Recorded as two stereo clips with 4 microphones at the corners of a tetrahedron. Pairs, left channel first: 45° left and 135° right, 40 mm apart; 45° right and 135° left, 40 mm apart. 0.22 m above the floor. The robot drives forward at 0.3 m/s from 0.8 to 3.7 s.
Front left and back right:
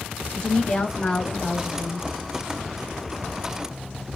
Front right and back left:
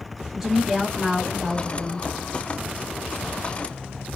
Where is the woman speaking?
55° left, 1.0 m; by 2.1 s 120° left, 0.9 m.